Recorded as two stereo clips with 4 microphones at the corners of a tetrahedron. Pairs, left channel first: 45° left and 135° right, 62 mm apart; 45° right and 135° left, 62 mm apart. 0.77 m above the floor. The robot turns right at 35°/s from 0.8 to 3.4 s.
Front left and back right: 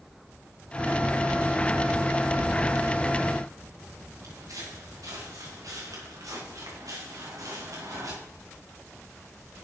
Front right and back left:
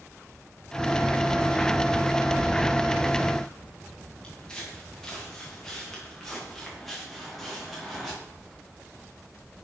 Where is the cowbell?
No cowbell in this recording.